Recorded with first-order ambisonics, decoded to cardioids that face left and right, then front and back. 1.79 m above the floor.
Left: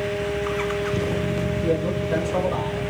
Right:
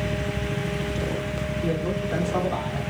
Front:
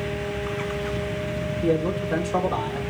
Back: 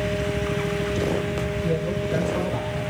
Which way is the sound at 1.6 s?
5° left.